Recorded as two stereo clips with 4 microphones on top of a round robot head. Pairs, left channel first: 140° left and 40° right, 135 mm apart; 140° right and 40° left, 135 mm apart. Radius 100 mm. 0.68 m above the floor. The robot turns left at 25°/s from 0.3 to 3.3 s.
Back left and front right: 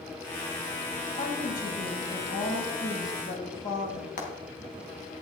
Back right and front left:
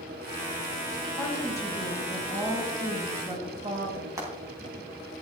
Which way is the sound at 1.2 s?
165° left.